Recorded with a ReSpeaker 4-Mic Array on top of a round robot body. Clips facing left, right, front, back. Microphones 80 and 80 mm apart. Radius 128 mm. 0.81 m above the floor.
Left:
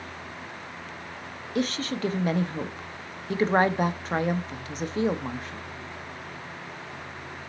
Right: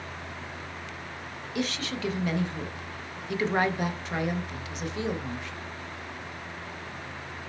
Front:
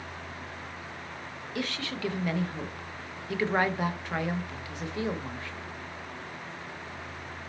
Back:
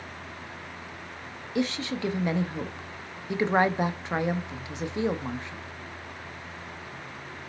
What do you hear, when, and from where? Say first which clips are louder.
1.6 s a woman speaking: left 4 dB, back 6 dB; 120° left, 0.7 m